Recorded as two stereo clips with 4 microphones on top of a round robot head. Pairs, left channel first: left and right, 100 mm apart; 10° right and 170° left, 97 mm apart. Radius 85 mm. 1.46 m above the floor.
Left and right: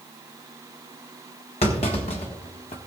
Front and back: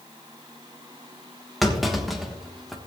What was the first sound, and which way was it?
A clunk, 80° left.